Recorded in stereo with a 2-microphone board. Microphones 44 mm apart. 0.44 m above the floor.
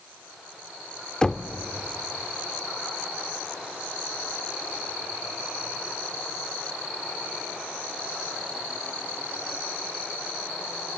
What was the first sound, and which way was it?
Knocking, 15° left (ahead or behind).